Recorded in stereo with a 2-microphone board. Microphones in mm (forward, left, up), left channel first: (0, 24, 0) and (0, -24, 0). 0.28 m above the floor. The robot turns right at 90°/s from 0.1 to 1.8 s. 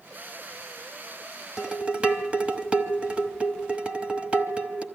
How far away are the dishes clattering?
About 0.9 m.